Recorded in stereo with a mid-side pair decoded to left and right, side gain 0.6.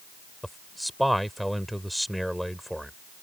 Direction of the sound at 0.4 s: Straight ahead.